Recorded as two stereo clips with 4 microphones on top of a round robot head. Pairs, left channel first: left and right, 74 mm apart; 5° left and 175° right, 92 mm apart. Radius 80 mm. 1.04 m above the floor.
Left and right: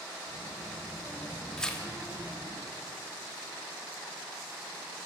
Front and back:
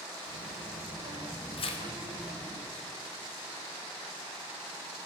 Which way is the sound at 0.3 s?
170° left.